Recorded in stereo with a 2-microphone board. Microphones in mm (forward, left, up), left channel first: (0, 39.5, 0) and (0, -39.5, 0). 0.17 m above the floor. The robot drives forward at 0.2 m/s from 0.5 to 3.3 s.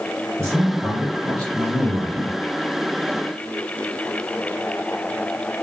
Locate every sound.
0.4 s a man speaking: 40° right (ahead or behind), 2.5 m; by 2.4 s 35° right (ahead or behind), 3 m